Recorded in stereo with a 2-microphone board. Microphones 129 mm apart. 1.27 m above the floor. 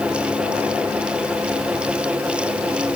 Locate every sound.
Only background noise.